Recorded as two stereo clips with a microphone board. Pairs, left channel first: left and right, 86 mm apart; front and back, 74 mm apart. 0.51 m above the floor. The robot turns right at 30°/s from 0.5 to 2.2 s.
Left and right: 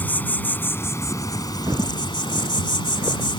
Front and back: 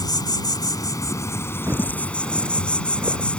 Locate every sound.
0.0 s an insect: 25° left; by 3.4 s 75° left
1.7 s footsteps: 130° right; by 3.3 s 150° right